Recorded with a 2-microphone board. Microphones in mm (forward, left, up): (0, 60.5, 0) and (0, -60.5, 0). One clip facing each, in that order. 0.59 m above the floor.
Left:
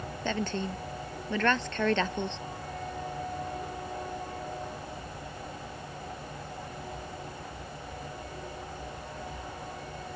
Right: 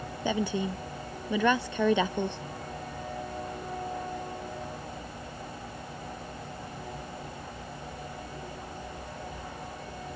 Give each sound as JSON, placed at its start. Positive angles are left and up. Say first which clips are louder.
{"t": 0.2, "sound": "a woman speaking", "louder": "right 3 dB", "side_deg": -10}